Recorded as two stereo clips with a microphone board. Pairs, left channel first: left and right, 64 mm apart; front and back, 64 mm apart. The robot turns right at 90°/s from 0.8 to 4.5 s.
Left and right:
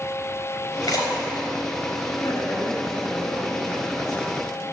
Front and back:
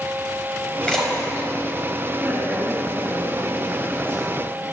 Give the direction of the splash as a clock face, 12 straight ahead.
10 o'clock.